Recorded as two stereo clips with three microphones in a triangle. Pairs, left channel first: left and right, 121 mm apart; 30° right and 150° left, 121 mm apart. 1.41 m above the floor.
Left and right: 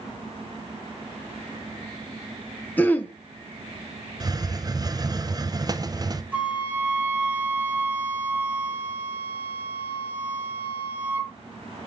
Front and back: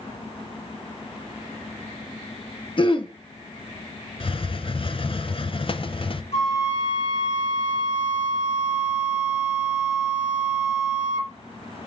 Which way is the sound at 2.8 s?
15° left.